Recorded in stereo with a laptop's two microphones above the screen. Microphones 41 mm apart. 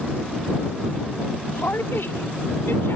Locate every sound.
1.5 s a woman speaking: 80° left; by 3.0 s 75° left (ahead or behind)